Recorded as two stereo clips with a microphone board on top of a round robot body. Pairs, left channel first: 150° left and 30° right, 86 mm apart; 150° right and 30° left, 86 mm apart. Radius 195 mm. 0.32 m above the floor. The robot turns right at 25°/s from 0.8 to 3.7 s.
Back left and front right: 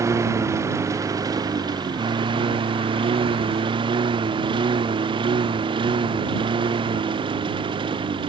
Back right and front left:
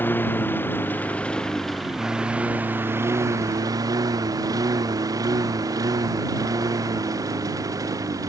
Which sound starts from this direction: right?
A lawn mower, at 0.0 s.